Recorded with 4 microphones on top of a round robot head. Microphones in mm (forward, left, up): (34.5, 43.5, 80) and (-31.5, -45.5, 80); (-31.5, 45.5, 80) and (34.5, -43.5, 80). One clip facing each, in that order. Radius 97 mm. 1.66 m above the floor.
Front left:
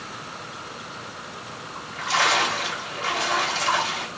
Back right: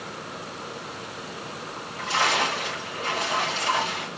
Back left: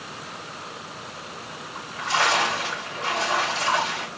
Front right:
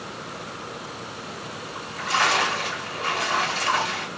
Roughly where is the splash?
Ahead left.